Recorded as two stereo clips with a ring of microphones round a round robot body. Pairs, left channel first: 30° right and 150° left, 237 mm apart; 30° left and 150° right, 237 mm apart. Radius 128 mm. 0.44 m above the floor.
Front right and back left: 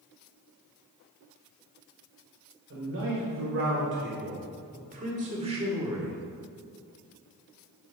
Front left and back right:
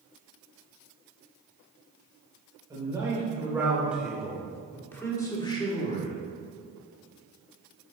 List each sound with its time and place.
2.7 s a man speaking: 140° left, 2.5 m; by 6.2 s 75° left, 1.8 m